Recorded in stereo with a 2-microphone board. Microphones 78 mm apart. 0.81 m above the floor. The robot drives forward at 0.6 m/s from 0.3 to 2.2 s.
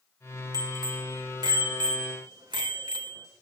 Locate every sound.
0.5 s a bicycle bell: 55° right (ahead or behind), 2.5 m; by 3.3 s 80° right, 2 m